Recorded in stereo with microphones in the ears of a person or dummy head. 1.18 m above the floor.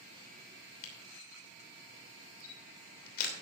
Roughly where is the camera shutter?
Left.